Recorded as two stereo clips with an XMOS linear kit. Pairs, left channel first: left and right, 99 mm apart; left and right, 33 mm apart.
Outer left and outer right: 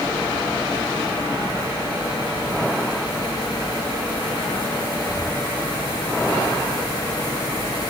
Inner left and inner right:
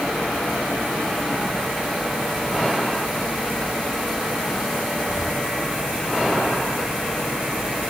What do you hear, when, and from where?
Only background noise.